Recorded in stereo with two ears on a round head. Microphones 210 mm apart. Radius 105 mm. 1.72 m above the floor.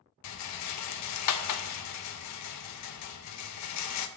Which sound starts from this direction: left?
A rattle, at 0.2 s.